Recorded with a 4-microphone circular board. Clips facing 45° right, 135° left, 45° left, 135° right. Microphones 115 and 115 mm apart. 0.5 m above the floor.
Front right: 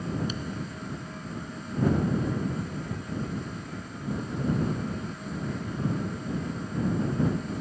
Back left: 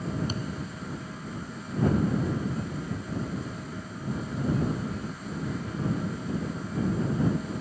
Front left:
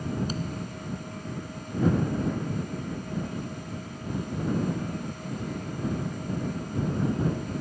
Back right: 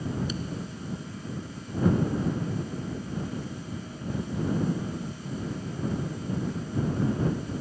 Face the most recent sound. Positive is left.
turn(degrees=90)